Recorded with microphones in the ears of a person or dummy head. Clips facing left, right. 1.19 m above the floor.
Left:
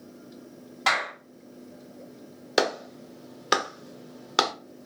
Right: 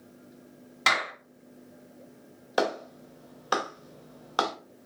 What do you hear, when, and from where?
0.9 s a clap: 30° right (ahead or behind), 3 m
2.6 s a clap: 30° left (ahead or behind), 0.9 m